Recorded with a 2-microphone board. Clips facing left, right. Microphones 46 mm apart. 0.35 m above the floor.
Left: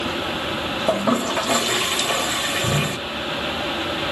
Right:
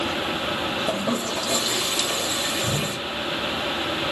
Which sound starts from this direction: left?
A toilet flushing, at 0.9 s.